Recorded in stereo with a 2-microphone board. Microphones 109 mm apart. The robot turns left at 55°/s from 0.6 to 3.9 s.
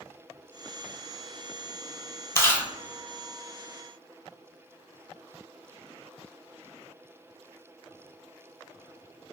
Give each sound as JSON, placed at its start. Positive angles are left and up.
{"t": 2.4, "sound": "chewing", "side_deg": 25, "distance_m": 0.6}